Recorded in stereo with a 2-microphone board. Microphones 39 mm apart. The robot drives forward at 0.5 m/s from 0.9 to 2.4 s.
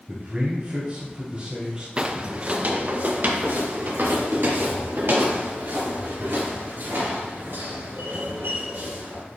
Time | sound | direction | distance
0.1 | a man speaking | 40° right (ahead or behind) | 1.5 m
2.0 | footsteps | 30° right (ahead or behind) | 0.5 m